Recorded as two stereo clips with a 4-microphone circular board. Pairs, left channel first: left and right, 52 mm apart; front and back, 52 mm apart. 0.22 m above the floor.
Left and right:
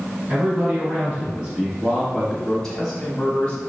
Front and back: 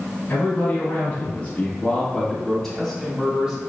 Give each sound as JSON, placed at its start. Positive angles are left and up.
{"t": 0.3, "sound": "a man speaking", "azimuth_deg": -35, "distance_m": 1.6}